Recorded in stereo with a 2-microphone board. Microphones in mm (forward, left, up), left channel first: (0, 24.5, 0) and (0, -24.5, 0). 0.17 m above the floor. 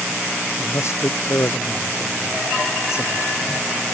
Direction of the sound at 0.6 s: 65° left (ahead or behind).